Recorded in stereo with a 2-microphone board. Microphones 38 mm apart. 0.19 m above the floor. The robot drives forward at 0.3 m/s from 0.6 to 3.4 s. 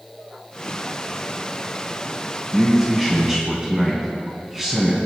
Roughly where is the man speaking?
Centre.